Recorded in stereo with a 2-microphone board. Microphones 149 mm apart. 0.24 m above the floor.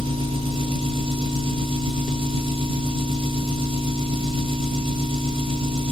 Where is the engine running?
35° right (ahead or behind), 0.8 m.